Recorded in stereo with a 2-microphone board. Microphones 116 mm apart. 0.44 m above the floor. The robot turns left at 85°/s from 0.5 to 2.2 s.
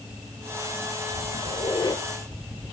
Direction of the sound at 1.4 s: 80° left.